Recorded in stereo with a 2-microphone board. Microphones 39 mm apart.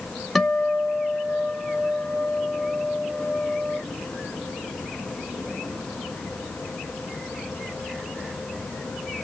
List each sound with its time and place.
0.3 s a guitar: centre (ahead or behind), 1.0 m